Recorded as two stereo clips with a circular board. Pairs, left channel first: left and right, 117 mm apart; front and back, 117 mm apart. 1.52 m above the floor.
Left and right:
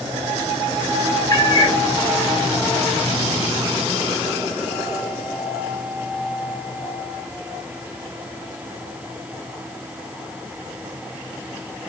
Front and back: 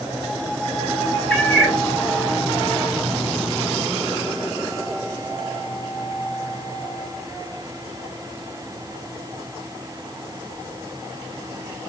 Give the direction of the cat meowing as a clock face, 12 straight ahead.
10 o'clock.